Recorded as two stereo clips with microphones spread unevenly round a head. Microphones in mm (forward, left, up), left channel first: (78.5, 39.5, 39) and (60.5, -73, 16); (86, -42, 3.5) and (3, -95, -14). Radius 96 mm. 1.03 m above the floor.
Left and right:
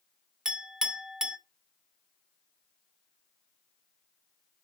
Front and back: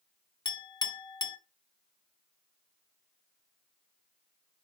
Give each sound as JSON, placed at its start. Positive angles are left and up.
{"t": 0.5, "sound": "a clink", "azimuth_deg": -10, "distance_m": 0.8}